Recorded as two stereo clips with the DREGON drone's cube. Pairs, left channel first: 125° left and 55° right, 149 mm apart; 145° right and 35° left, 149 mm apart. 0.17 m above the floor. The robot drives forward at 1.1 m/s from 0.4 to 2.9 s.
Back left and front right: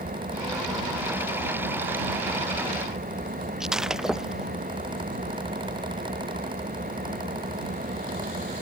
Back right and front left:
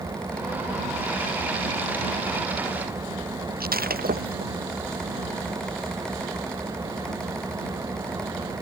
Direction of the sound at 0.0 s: 35° right.